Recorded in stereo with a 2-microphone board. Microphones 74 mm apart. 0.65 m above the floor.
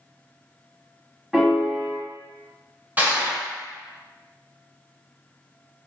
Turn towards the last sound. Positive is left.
turn(degrees=-25)  # may be behind; listen again after turning